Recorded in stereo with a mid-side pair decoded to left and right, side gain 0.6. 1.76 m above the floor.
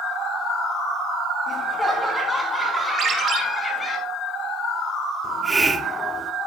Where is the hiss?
15° right, 0.9 m.